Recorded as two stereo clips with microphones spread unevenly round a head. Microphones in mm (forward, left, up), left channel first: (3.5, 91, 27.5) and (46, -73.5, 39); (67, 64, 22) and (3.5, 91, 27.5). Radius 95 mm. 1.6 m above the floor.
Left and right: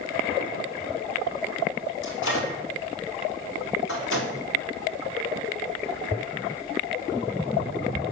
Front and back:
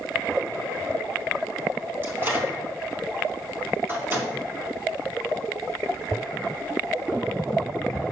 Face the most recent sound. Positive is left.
turn(degrees=100)